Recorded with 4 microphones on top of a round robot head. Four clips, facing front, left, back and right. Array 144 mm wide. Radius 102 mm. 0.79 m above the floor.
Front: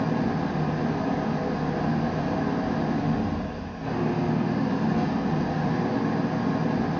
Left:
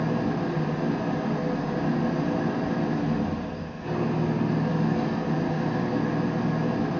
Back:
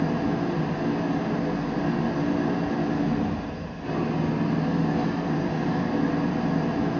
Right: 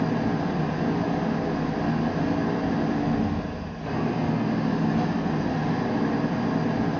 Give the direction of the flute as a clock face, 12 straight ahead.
I don't hear a flute.